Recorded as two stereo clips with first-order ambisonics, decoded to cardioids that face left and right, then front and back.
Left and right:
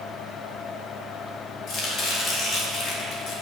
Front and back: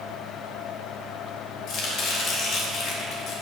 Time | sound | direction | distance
1.7 | chopping | 40° left | 1.8 m